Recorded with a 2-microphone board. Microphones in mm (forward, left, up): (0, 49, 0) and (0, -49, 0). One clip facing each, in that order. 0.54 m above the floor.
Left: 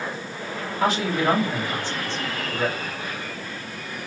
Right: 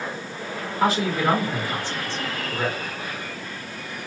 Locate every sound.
0.8 s a man speaking: 10° right (ahead or behind), 1.2 m